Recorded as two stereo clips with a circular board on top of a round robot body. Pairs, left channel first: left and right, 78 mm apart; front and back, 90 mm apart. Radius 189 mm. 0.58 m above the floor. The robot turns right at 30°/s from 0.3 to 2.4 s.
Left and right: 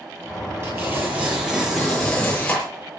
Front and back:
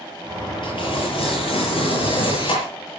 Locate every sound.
0.6 s tearing paper: 35° right, 7.5 m; by 2.6 s 20° left, 7.5 m